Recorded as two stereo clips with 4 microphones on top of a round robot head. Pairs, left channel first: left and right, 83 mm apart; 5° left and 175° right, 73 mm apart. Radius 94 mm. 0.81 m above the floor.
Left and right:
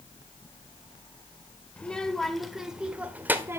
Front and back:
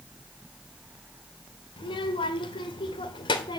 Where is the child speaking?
10° left, 1.7 m; by 3.6 s 25° right, 1.5 m.